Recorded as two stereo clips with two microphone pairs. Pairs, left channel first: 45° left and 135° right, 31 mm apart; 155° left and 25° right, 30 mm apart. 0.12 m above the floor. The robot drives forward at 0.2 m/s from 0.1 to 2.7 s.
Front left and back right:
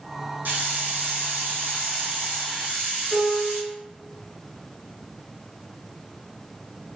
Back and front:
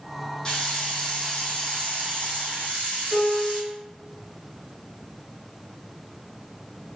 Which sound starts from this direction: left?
A piano, at 3.1 s.